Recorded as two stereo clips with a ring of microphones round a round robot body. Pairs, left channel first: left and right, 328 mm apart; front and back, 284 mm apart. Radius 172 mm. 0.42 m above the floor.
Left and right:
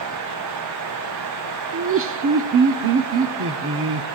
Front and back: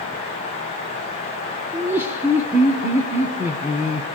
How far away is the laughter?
About 1.0 m.